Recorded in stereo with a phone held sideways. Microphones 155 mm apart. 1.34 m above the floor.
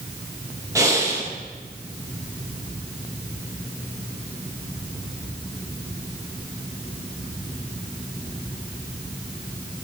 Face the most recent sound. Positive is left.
turn(degrees=-20)  # may be behind; listen again after turning